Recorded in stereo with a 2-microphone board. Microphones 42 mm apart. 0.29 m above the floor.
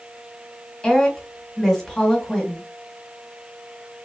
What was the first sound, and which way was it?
A woman speaking, 15° left (ahead or behind).